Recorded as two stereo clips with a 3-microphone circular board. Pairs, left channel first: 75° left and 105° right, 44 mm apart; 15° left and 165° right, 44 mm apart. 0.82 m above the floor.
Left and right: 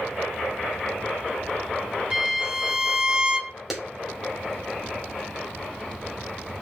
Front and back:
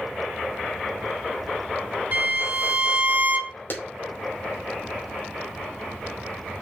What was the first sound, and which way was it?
A violin, 165° right.